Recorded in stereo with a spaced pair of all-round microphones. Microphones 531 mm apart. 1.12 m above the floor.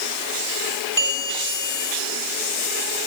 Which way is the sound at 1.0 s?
75° right (ahead or behind).